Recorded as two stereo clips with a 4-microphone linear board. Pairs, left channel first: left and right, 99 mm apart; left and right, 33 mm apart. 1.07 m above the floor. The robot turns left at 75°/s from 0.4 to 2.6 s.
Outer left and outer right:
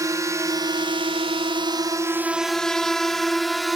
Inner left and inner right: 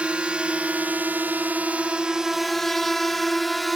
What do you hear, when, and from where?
0.0 s a drone: 35° right (ahead or behind); by 3.8 s centre (ahead or behind)